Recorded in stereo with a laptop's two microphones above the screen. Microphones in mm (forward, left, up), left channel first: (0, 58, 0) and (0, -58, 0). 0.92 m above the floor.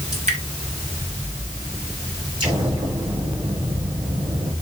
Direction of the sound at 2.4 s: 40° right (ahead or behind).